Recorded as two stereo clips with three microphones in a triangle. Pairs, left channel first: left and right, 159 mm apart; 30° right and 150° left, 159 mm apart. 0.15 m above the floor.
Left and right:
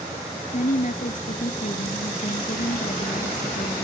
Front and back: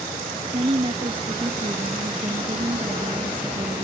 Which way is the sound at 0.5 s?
105° left.